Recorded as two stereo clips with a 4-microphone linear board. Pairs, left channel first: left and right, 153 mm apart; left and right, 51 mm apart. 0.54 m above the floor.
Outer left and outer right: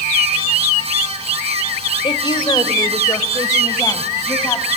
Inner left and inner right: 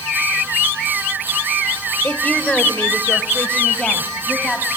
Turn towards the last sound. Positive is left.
turn(degrees=20)  # may be behind; listen again after turning